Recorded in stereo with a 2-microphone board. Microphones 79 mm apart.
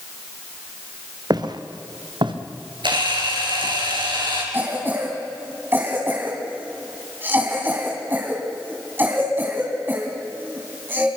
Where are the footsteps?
55° right (ahead or behind), 2 m; by 2.4 s 75° right (ahead or behind), 3 m.